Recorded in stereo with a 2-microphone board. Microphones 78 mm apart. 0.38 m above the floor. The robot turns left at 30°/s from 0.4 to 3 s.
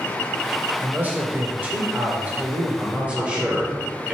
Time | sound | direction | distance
0.8 | a man speaking | 20° right (ahead or behind) | 0.9 m
2.8 | a man speaking | 15° right (ahead or behind) | 1.2 m